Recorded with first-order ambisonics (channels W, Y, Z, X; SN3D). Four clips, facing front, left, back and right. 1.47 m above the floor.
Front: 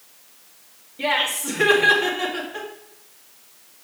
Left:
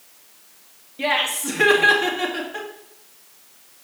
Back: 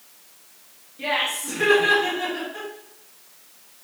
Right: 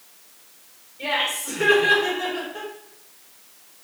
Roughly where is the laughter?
Left.